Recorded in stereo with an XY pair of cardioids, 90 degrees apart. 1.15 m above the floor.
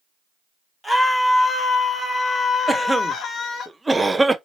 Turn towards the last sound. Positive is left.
turn(degrees=-15)